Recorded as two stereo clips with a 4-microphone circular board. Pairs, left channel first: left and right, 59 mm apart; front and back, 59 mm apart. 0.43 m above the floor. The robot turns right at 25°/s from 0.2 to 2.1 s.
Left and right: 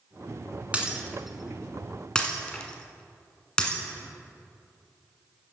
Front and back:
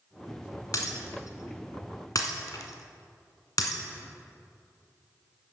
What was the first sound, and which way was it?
Breaking glass, 20° right.